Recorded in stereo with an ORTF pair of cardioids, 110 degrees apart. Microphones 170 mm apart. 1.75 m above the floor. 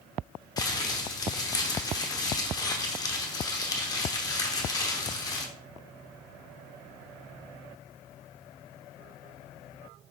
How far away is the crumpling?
About 0.8 m.